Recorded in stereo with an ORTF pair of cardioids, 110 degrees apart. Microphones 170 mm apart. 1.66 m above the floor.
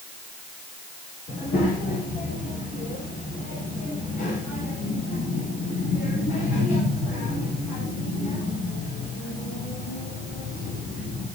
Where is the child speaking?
60° left, 6.5 m.